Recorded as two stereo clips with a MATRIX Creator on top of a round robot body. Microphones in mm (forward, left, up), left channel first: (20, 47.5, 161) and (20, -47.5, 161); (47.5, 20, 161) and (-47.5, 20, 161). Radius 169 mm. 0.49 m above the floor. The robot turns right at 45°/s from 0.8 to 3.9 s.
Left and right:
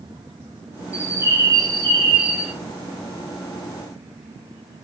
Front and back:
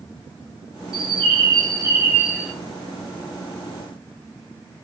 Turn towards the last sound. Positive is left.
turn(degrees=-30)